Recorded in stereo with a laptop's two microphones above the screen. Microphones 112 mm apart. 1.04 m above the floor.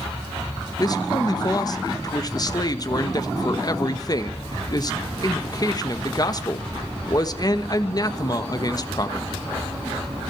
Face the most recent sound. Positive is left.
turn(degrees=35)  # may be behind; listen again after turning